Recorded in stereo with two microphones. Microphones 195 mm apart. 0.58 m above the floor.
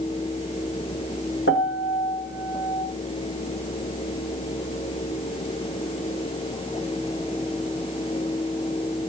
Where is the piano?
80° left, 1.7 m.